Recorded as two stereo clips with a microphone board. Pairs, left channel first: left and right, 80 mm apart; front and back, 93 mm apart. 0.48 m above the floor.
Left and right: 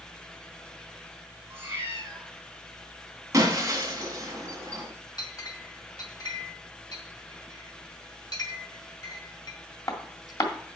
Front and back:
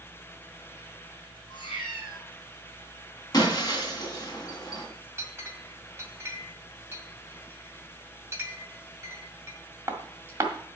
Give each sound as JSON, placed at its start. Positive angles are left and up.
{"t": 1.5, "sound": "a cat meowing", "azimuth_deg": -30, "distance_m": 6.0}
{"t": 3.3, "sound": "breaking glass", "azimuth_deg": -45, "distance_m": 2.5}
{"t": 5.2, "sound": "a clink", "azimuth_deg": 120, "distance_m": 1.8}